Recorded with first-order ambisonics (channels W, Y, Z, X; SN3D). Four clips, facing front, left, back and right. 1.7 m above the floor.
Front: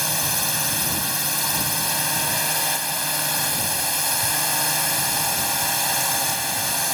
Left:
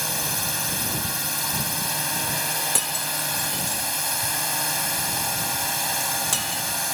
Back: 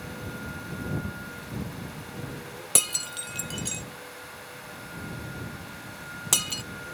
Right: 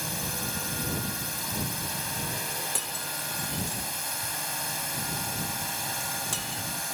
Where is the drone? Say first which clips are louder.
Left 6 dB, front 13 dB; 25° left.